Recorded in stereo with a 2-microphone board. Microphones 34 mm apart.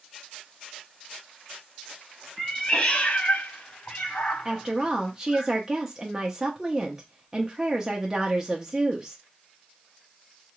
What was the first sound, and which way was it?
A cat meowing, 20° left (ahead or behind).